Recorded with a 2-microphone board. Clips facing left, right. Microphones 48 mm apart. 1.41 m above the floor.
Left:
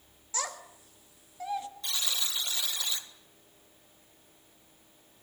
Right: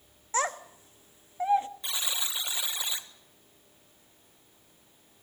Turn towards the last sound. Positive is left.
turn(degrees=-20)  # may be behind; listen again after turning